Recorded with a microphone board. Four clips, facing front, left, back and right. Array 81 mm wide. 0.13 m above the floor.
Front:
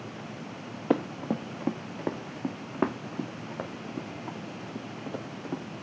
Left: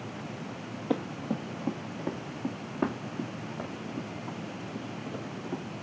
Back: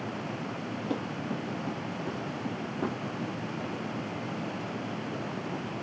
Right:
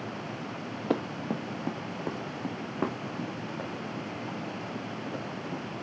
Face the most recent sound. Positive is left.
turn(degrees=-5)